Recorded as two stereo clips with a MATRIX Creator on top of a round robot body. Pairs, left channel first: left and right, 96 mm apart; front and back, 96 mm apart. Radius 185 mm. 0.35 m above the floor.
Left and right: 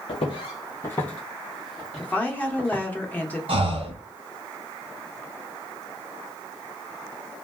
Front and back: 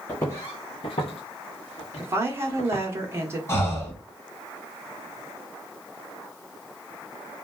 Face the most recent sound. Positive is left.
turn(degrees=-65)